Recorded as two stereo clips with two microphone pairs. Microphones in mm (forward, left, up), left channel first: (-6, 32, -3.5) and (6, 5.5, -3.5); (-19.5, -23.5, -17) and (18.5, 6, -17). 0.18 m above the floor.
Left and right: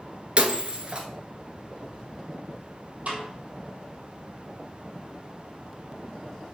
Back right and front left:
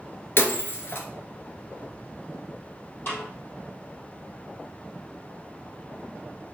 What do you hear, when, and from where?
0.4 s breaking glass: 115° right, 1.0 m
3.1 s a snare drum: 100° right, 3.5 m